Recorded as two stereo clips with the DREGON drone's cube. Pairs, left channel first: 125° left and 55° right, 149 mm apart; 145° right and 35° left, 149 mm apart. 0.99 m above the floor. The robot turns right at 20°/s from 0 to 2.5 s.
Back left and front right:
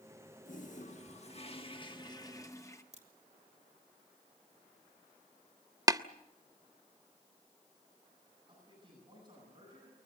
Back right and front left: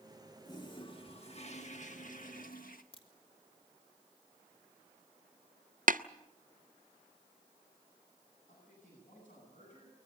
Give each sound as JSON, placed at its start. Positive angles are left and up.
{"t": 0.5, "sound": "a toilet flushing", "azimuth_deg": 150, "distance_m": 1.5}
{"t": 2.9, "sound": "a crack", "azimuth_deg": -95, "distance_m": 3.0}
{"t": 5.9, "sound": "tapping", "azimuth_deg": 10, "distance_m": 0.5}
{"t": 8.5, "sound": "a man speaking", "azimuth_deg": -115, "distance_m": 9.5}